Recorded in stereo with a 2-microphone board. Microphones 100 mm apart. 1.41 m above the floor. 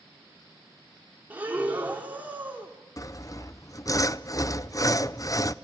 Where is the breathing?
20° right (ahead or behind), 3 m.